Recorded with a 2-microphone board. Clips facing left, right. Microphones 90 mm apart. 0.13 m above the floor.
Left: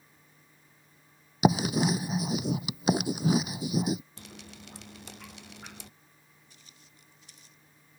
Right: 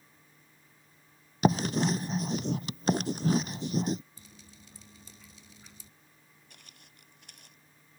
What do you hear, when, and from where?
1.4 s writing: 10° left (ahead or behind)
4.2 s dripping: 85° left
6.5 s footsteps: 70° right (ahead or behind); by 7.6 s 65° right (ahead or behind)